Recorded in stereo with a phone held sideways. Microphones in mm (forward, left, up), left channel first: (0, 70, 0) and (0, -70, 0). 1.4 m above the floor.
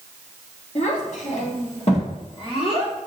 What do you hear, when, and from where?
0.8 s a child speaking: 55° left (ahead or behind), 1.1 m; by 2.9 s 40° left (ahead or behind), 1.7 m